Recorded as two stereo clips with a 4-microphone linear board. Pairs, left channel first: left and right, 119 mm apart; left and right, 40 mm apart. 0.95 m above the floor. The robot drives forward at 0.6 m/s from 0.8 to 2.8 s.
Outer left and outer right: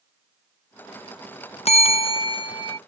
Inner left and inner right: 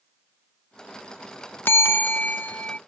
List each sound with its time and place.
1.6 s a bell: 65° left (ahead or behind); by 2.8 s 35° left (ahead or behind)